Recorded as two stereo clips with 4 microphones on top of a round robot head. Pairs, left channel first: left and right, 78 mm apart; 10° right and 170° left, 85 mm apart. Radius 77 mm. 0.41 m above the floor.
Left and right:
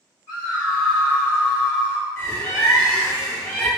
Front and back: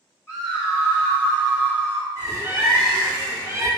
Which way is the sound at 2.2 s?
135° left.